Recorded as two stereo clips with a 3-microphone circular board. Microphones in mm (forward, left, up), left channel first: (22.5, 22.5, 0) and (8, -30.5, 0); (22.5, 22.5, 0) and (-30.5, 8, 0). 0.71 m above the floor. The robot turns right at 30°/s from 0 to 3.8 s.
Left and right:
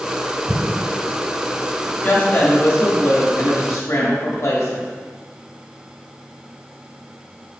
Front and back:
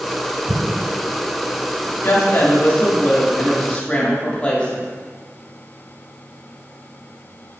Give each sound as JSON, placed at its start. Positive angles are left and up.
{"t": 0.5, "sound": "an explosion", "azimuth_deg": -155, "distance_m": 0.6}
{"t": 2.0, "sound": "a woman speaking", "azimuth_deg": 30, "distance_m": 1.8}